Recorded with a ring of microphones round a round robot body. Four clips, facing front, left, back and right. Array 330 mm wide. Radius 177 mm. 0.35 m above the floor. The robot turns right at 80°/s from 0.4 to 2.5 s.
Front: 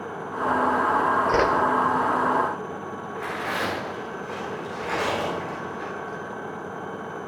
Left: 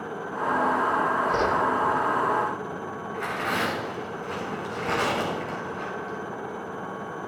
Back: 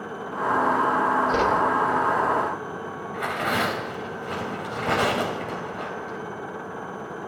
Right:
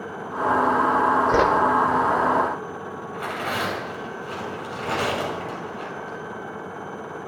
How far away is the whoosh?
About 0.9 m.